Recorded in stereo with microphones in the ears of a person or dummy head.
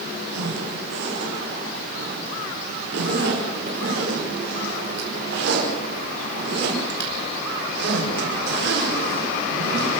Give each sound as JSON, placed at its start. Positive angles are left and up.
{"t": 0.3, "sound": "a zipper", "side_deg": -70, "distance_m": 5.0}